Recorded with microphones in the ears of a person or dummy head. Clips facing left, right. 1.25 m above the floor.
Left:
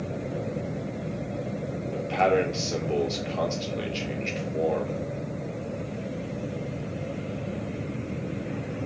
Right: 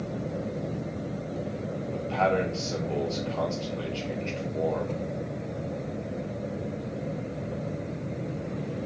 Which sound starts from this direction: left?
A man speaking, at 1.9 s.